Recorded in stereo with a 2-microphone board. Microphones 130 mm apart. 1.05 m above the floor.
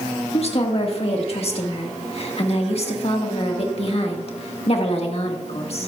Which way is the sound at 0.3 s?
50° left (ahead or behind).